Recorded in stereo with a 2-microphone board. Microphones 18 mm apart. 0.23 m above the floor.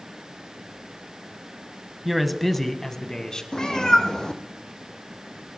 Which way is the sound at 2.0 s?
10° right (ahead or behind).